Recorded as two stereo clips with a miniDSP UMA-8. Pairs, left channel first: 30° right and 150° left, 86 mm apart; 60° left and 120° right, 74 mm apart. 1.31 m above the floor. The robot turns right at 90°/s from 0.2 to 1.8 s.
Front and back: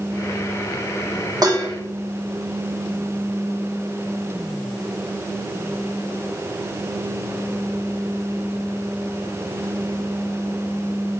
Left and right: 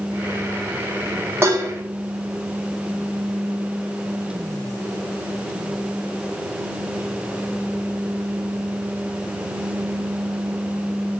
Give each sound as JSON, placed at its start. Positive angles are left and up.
{"t": 1.4, "sound": "dishes clattering", "azimuth_deg": -175, "distance_m": 1.3}